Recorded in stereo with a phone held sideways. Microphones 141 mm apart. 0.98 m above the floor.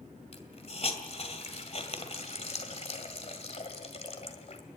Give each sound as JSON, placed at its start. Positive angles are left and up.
{"t": 0.3, "sound": "a hiss", "side_deg": 50, "distance_m": 2.0}